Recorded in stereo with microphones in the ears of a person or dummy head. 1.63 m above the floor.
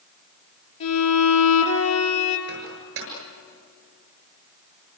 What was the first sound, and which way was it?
A violin, 80° left.